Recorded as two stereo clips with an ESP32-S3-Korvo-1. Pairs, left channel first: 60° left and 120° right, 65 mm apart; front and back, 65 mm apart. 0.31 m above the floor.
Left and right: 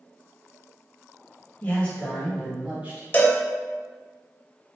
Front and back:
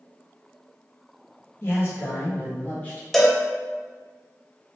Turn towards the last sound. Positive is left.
turn(degrees=85)